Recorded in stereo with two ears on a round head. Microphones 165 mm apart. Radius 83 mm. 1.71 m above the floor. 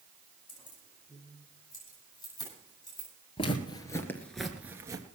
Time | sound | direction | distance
0.5 | keys jangling | 25° left (ahead or behind) | 8 m
3.4 | footsteps | 30° left (ahead or behind) | 2 m